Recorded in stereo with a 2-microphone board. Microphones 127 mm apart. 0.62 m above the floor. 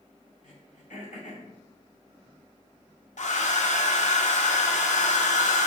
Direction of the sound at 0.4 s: 75° left (ahead or behind).